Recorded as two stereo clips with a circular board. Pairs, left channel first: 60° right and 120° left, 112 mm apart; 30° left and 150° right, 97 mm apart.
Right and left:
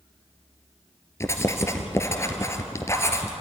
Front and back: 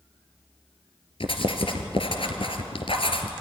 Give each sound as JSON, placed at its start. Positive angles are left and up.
{"t": 1.2, "sound": "writing", "azimuth_deg": 5, "distance_m": 2.0}